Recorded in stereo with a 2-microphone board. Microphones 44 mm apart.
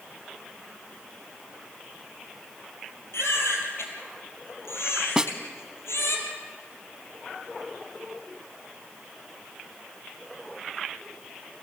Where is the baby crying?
80° left, 4 m.